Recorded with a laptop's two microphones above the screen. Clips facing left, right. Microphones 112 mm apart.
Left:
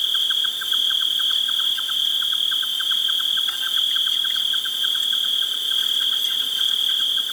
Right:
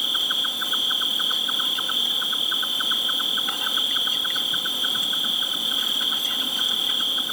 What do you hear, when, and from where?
0.0 s an insect: 60° right (ahead or behind)